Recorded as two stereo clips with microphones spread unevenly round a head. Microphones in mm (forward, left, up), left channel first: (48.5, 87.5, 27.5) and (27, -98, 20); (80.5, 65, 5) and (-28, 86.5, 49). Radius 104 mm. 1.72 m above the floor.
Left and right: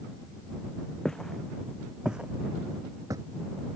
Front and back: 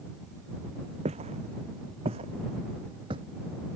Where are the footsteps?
170° left; by 3.2 s 170° right.